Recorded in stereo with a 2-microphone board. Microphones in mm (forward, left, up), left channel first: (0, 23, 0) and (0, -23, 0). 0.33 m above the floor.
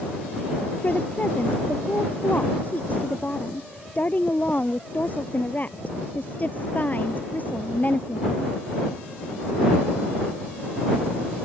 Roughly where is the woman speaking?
Left.